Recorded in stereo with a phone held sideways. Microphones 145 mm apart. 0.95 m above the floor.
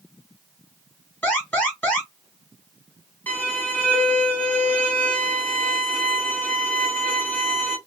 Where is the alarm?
10° left (ahead or behind), 2 m.